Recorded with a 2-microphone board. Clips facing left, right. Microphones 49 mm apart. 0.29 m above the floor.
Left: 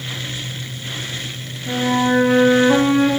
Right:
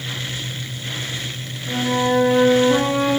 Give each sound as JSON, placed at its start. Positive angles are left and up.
{"t": 1.7, "sound": "a flute", "side_deg": 70, "distance_m": 0.8}